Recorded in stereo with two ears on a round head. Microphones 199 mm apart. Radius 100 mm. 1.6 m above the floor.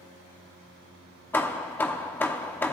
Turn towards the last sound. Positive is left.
turn(degrees=10)  # may be behind; listen again after turning